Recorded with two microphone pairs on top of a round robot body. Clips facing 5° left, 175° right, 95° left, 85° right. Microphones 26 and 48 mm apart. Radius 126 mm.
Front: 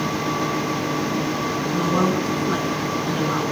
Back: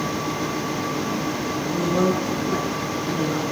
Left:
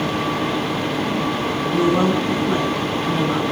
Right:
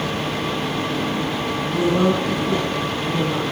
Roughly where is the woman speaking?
Ahead left.